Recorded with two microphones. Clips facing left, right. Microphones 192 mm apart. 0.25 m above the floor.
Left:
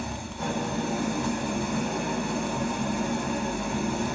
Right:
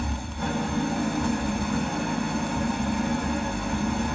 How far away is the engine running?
About 1.6 m.